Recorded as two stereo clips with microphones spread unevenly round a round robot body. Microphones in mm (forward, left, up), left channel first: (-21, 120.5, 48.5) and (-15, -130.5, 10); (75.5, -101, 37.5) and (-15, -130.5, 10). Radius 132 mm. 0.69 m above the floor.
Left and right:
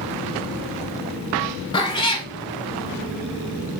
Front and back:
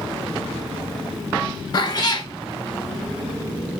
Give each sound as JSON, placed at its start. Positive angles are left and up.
{"t": 1.7, "sound": "a cat meowing", "azimuth_deg": 30, "distance_m": 1.0}